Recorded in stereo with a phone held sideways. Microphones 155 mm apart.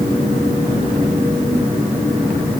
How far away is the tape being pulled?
I don't hear tape being pulled.